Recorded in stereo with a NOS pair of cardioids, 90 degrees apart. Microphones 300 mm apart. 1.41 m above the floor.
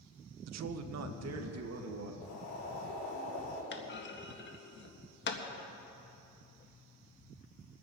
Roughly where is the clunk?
Ahead left.